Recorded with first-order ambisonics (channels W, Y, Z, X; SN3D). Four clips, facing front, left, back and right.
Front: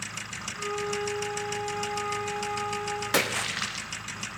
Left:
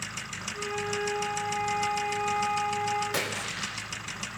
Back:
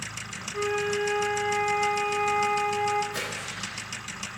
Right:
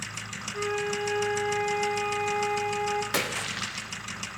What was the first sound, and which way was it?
A flute, 155° right.